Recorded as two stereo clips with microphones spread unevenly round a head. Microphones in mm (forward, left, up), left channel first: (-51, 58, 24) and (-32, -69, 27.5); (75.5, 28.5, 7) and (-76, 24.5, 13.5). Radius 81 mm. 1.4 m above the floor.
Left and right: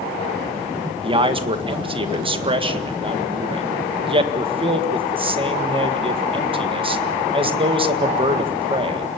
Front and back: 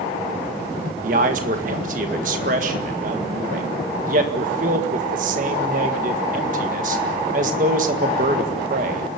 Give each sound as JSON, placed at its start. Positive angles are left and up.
{"t": 1.0, "sound": "a man speaking", "azimuth_deg": -130, "distance_m": 1.9}